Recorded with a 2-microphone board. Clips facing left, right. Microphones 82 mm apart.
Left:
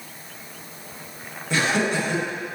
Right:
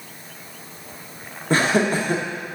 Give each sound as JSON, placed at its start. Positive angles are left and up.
{"t": 1.5, "sound": "laughter", "side_deg": -45, "distance_m": 1.7}